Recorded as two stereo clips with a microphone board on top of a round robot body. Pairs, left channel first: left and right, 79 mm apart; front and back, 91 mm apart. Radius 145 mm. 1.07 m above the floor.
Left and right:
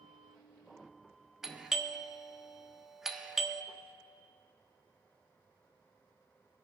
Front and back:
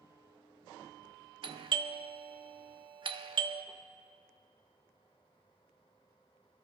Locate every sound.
1.4 s a doorbell: 175° right, 0.9 m